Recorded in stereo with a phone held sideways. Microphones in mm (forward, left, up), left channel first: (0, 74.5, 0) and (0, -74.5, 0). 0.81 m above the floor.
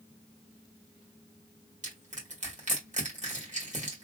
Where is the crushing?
55° right (ahead or behind), 1.7 m.